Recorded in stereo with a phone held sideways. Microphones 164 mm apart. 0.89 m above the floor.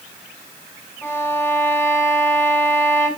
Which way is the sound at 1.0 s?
10° left (ahead or behind).